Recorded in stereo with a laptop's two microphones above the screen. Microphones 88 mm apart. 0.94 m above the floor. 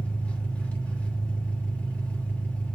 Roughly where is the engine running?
Centre.